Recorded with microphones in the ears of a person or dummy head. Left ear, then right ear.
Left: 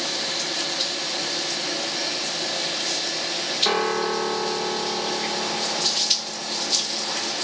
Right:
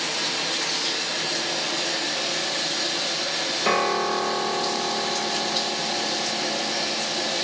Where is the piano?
35° left (ahead or behind), 1.8 m.